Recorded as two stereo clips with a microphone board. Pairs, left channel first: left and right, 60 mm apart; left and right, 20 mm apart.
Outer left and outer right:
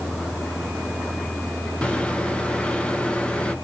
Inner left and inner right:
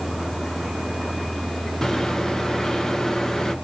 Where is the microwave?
20° left (ahead or behind), 0.6 m.